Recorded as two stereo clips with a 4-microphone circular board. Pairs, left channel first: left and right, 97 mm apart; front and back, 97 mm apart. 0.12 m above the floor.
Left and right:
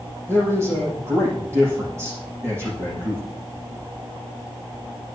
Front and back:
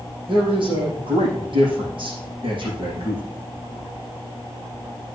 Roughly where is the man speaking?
Behind right.